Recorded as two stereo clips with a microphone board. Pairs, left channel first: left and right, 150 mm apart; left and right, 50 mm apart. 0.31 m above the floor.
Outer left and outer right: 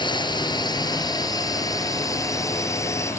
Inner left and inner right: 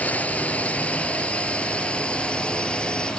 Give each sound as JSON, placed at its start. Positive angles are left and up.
{"t": 0.0, "sound": "a drone", "side_deg": 30}